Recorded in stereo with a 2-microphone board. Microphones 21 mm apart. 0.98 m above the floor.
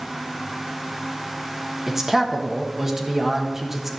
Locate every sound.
1.9 s a man speaking: 20° right (ahead or behind), 1.2 m